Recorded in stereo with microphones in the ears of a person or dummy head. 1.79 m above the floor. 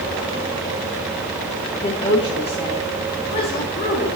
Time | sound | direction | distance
1.8 | a woman speaking | 25° left (ahead or behind) | 1.8 m